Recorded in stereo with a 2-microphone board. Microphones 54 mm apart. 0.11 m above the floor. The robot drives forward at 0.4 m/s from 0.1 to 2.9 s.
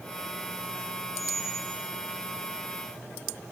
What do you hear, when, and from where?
1.1 s a squeak: 60° right (ahead or behind), 4.5 m; by 1.8 s 65° right (ahead or behind), 4 m